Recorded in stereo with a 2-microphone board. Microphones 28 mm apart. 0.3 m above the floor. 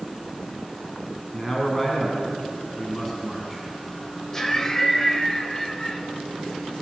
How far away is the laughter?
About 0.9 m.